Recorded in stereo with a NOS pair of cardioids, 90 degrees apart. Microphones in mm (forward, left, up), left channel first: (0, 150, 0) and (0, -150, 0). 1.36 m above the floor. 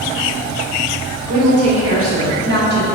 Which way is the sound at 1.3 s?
60° right.